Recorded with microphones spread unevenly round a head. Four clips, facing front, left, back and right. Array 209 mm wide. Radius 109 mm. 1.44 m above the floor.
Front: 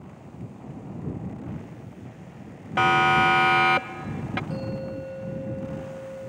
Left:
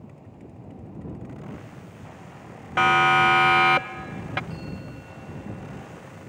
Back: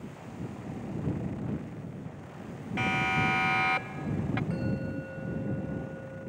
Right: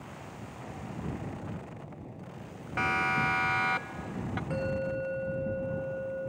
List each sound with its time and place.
2.8 s a siren: 25° left; by 4.4 s 45° left
4.5 s a bell: 60° right